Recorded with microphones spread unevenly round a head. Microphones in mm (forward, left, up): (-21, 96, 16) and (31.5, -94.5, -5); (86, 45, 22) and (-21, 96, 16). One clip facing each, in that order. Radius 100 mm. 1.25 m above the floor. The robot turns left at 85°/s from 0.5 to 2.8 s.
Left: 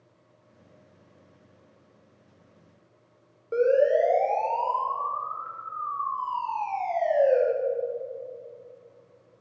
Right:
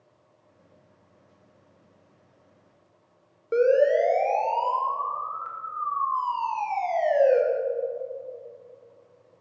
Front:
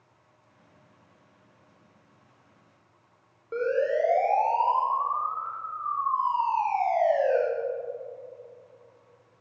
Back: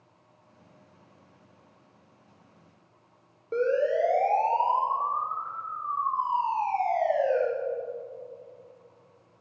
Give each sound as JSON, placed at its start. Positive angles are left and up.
{"t": 3.5, "sound": "a siren", "azimuth_deg": -135, "distance_m": 6.5}